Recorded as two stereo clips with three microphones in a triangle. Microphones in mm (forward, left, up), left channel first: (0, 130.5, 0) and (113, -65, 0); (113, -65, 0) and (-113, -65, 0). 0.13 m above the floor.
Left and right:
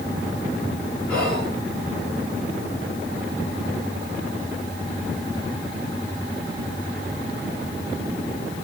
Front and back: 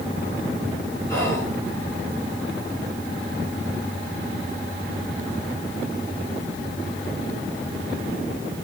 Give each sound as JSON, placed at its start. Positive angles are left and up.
{"t": 1.1, "sound": "whispering", "azimuth_deg": 50, "distance_m": 1.6}